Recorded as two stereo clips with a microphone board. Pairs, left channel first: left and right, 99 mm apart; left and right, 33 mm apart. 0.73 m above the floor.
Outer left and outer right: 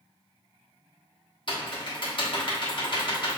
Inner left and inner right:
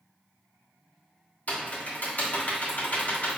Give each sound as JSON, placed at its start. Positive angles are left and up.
{"t": 1.5, "sound": "typing on a keyboard", "side_deg": 55, "distance_m": 1.3}